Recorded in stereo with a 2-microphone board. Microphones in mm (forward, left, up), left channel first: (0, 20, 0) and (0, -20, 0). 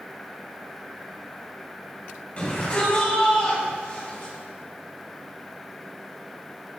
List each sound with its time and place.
2.4 s a shout: 35° left (ahead or behind), 6 m; by 4.3 s 40° left (ahead or behind), 8 m